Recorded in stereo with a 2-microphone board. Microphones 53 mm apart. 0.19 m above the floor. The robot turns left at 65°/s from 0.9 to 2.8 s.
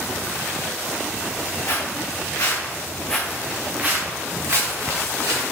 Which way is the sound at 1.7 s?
50° left (ahead or behind).